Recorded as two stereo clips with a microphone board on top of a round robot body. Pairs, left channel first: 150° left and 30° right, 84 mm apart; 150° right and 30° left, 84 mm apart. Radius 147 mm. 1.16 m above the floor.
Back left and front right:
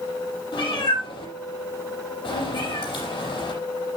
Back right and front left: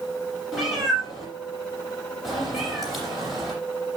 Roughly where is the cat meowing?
Behind left.